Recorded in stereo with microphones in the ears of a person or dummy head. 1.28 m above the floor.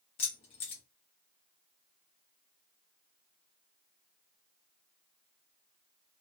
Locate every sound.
0.2 s keys jangling: 40° left (ahead or behind), 0.7 m